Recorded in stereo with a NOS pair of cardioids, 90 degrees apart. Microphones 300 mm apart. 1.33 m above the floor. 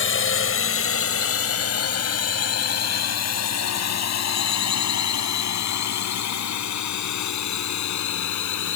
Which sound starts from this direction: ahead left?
A drone, at 0.0 s.